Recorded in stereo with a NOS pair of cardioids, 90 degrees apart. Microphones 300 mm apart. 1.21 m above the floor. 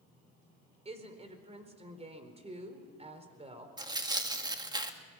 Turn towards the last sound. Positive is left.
turn(degrees=-15)